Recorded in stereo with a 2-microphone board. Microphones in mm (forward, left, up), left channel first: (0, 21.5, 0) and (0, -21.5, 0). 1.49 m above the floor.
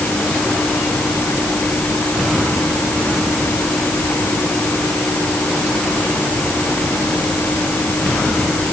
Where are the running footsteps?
I don't hear running footsteps.